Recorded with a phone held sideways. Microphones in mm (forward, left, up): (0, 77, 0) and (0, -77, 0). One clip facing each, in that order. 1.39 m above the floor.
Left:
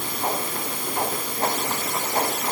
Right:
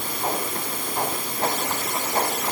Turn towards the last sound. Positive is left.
No sound to turn to.